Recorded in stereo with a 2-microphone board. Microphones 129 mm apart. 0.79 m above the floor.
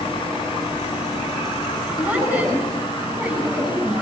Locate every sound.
2.0 s a woman speaking: 10° right (ahead or behind), 7.5 m